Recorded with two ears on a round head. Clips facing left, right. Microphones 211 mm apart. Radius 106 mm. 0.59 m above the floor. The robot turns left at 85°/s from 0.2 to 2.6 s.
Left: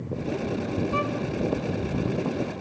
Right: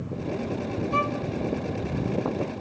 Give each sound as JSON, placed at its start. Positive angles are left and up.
{"t": 0.9, "sound": "a violin", "side_deg": -15, "distance_m": 0.6}